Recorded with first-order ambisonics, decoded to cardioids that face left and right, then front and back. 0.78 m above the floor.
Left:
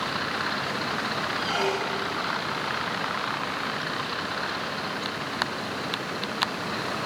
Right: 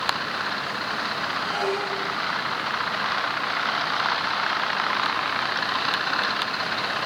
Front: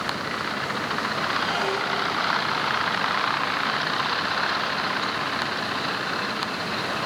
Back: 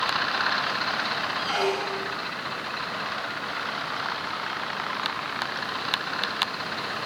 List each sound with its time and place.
1.4 s a squeak: 155° left, 8 m